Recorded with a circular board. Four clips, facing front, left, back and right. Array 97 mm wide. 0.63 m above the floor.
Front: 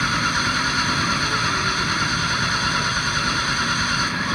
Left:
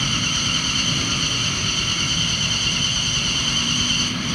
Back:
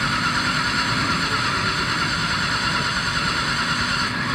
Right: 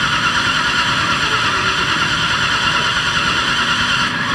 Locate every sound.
0.0 s an engine running: 85° right